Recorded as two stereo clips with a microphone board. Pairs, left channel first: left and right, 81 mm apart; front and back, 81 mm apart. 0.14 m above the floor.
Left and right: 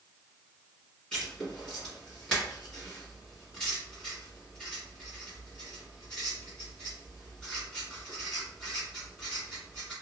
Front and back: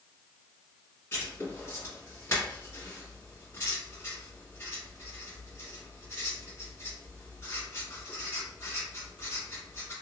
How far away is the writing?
About 1.9 m.